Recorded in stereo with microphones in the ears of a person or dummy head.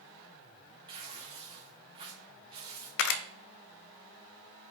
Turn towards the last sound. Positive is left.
turn(degrees=60)  # may be behind; listen again after turning